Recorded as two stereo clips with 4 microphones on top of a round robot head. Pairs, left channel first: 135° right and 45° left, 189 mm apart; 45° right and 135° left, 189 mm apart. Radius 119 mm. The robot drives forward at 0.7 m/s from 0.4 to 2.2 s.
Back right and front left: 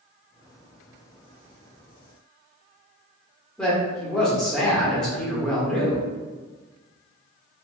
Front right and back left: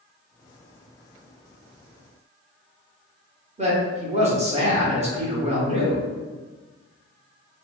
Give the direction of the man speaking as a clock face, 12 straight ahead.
7 o'clock.